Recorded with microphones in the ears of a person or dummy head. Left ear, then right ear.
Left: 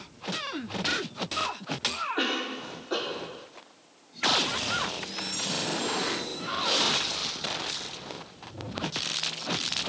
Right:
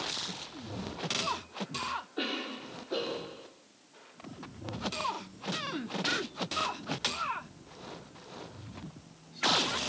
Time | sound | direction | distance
2.2 | a cough | 55° left (ahead or behind) | 5 m